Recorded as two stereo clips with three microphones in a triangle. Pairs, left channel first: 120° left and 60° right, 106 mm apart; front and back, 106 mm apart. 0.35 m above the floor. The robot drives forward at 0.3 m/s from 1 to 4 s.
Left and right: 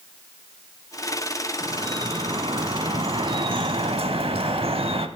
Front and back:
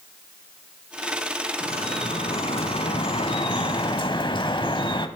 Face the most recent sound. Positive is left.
turn(degrees=-35)